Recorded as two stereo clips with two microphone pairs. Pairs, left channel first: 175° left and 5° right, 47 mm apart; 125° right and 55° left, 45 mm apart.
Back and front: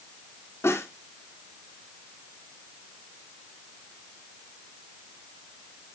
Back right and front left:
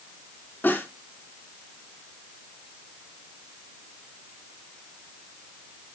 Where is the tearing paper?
No tearing paper in this recording.